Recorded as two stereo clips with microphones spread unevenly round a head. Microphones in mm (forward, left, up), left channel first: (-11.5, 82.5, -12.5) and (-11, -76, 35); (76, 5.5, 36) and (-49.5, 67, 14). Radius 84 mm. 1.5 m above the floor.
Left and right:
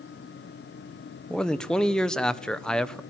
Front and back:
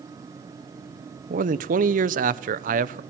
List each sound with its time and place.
1.3 s a man speaking: 170° left, 1.1 m